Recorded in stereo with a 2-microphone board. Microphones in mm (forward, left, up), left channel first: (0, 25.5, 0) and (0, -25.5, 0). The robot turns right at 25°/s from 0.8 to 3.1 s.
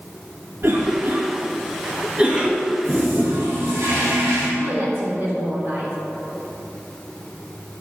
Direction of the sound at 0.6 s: 55° right (ahead or behind).